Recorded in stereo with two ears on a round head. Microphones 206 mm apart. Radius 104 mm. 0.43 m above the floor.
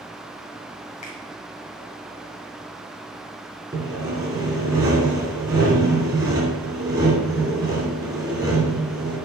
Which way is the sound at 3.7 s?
15° right (ahead or behind).